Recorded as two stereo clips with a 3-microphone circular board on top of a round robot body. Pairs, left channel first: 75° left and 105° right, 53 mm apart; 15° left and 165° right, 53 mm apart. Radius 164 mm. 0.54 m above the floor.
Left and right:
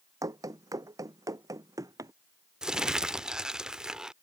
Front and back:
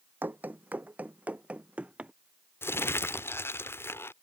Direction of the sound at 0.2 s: 110° right.